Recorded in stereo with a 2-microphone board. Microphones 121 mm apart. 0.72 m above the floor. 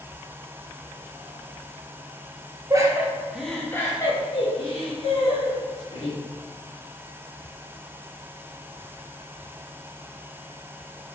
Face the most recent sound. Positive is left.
turn(degrees=70)  # may be behind; listen again after turning